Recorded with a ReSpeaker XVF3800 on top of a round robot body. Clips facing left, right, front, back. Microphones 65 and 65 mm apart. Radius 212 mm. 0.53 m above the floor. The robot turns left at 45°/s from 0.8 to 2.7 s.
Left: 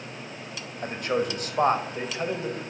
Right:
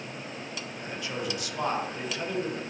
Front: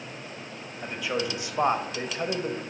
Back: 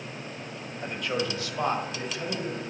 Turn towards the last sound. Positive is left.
turn(degrees=5)